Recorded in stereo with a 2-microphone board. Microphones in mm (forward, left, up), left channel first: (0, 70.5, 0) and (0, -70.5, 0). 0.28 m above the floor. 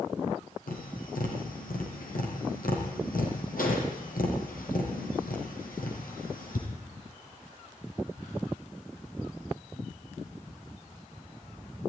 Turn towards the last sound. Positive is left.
turn(degrees=85)